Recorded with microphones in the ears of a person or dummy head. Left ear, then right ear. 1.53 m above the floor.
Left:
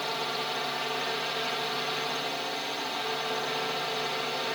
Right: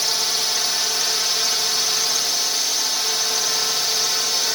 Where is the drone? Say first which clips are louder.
Right 10 dB; 70° right (ahead or behind).